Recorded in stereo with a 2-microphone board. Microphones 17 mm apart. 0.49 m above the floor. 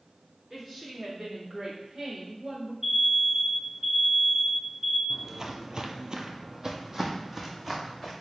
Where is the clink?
I don't hear a clink.